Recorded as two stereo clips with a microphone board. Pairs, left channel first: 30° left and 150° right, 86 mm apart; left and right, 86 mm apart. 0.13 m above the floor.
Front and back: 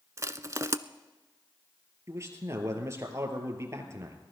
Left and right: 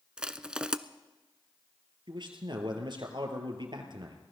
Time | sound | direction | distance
0.2 | crushing | 165° right | 0.5 m
2.1 | a man speaking | 100° right | 2.5 m